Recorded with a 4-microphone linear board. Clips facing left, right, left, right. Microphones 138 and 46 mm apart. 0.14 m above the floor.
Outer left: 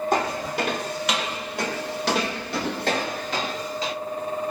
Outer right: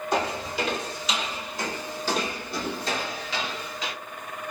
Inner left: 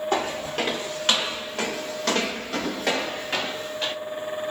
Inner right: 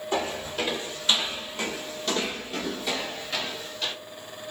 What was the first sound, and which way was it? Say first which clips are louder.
Footsteps: outer right 1 dB, even; 55° left (ahead or behind).